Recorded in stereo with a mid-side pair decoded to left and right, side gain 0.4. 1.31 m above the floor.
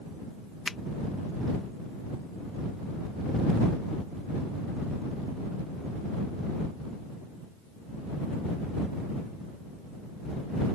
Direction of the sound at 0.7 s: 30° left.